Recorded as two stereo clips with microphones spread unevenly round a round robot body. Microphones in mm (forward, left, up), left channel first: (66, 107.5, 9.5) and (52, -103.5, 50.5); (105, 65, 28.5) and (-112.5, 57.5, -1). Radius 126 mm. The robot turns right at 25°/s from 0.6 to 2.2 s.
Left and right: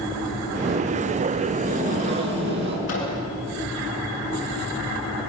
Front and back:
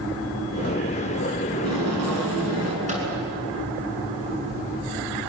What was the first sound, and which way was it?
Tape being pulled, 160° right.